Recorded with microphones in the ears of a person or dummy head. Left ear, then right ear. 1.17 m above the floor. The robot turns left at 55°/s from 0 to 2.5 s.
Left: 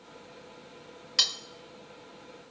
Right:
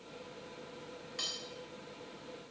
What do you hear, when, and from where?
1.2 s cutlery clinking: 55° left (ahead or behind), 0.8 m; by 1.4 s 50° left (ahead or behind), 0.8 m